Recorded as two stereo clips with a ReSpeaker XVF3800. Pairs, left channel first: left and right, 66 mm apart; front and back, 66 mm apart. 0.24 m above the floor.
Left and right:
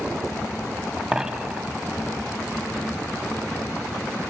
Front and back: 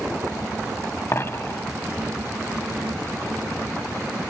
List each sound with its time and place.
1.1 s a dropped coin: 15° right, 0.7 m